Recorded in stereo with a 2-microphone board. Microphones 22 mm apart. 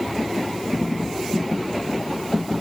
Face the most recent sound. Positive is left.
No sound to turn to.